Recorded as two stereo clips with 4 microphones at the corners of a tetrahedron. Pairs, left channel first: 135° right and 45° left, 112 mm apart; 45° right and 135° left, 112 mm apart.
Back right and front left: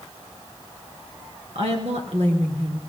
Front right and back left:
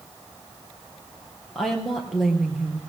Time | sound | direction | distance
1.6 | a woman speaking | 45° left | 3 m